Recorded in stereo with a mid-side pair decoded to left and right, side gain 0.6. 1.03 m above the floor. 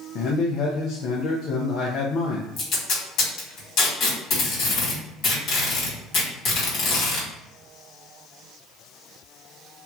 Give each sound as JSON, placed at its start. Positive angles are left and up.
{"t": 0.1, "sound": "a man speaking", "azimuth_deg": 60, "distance_m": 0.6}
{"t": 2.6, "sound": "tape being pulled", "azimuth_deg": 65, "distance_m": 1.6}